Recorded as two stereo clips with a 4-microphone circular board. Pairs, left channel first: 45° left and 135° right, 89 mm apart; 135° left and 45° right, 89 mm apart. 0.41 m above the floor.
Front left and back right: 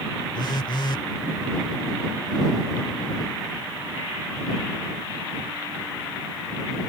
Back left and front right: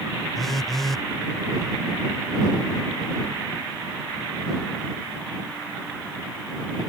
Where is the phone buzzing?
50° left.